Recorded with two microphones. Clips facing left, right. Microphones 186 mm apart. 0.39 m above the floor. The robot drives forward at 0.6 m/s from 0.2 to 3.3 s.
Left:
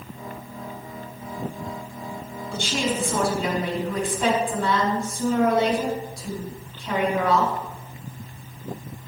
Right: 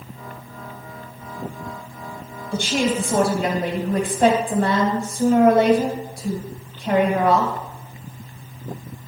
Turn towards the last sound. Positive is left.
turn(degrees=-60)  # may be behind; listen again after turning